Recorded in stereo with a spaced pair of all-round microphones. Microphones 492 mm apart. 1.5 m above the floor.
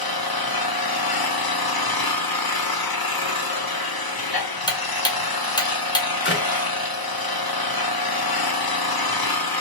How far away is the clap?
About 1.2 m.